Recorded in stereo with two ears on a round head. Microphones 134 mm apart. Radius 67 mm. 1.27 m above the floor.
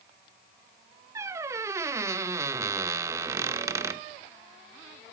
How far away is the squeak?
About 0.5 m.